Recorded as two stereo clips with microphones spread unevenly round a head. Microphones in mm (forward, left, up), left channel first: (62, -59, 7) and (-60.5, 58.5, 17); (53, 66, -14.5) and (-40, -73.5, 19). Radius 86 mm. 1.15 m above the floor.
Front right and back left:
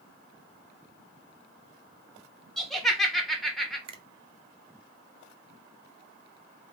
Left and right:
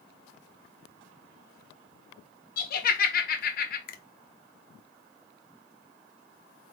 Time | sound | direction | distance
2.6 | laughter | 45° left | 1.3 m
3.9 | a finger snap | 75° left | 0.7 m